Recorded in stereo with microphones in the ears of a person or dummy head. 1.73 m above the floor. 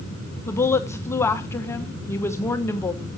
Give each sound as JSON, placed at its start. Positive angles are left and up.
{"t": 0.5, "sound": "a woman speaking", "side_deg": 20, "distance_m": 1.3}